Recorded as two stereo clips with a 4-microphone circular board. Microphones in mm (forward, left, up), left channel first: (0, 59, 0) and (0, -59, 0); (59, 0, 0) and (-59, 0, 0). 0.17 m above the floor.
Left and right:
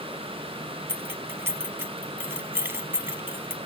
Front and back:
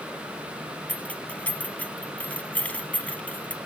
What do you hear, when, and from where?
0.9 s keys jangling: 60° right, 1.0 m